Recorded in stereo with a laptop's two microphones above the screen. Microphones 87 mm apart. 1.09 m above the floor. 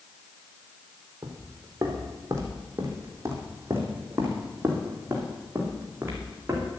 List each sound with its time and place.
1.2 s footsteps: 40° right (ahead or behind), 3 m; by 6.7 s 25° right (ahead or behind), 5.5 m